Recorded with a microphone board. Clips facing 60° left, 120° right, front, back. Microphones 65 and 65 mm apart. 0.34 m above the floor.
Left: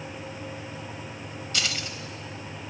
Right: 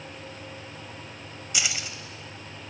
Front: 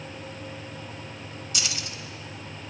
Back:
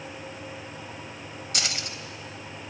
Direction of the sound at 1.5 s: 165° left.